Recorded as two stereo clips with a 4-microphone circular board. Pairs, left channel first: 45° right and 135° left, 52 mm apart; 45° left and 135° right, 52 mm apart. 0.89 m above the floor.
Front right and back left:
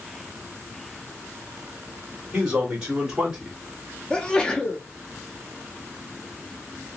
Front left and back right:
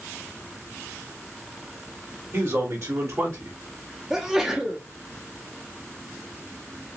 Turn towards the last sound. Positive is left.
turn(degrees=-70)